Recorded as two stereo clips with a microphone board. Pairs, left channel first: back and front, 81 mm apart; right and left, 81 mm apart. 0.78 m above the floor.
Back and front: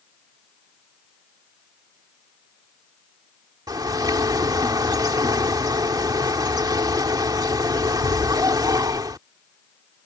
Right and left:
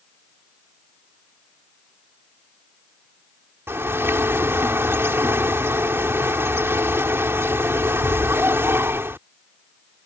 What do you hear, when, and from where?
3.7 s a bird: 30° left